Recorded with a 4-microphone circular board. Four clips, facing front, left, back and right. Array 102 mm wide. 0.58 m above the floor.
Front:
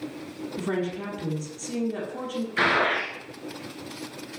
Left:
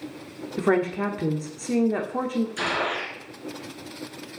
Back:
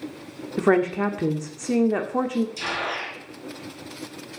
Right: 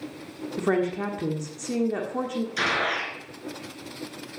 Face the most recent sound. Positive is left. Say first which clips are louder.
# even, front 6 dB
turn(degrees=-10)